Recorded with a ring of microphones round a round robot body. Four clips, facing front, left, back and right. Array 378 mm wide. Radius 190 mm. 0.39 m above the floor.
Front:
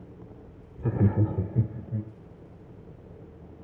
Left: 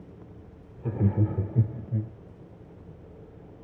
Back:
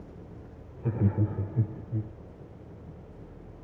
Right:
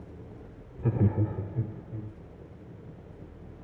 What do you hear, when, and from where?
0.8 s laughter: 50° right, 1.0 m; by 2.1 s 60° left, 1.9 m